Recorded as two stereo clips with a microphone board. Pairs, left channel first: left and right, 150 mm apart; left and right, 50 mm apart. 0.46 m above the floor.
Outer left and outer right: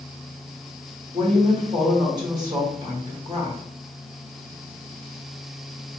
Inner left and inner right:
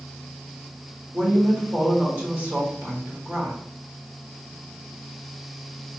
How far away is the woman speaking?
About 1.6 m.